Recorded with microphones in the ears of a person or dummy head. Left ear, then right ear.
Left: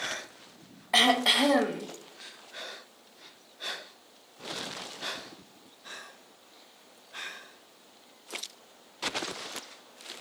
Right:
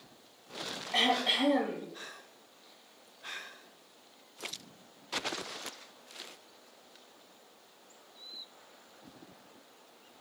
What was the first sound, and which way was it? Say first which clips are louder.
Throat clearing: left 6 dB; 80° left.